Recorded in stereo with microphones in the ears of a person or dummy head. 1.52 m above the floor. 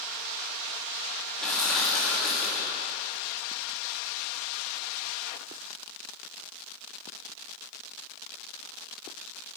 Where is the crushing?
5° left (ahead or behind), 1.4 m.